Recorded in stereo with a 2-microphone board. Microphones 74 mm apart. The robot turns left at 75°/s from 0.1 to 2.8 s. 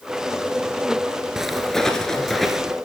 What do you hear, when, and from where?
1.4 s footsteps: 10° right (ahead or behind), 1.4 m